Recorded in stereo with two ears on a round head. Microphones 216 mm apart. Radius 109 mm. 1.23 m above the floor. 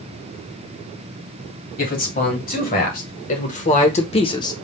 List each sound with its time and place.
1.8 s a man speaking: 40° left (ahead or behind), 2.5 m; by 4.5 s 15° left (ahead or behind), 0.7 m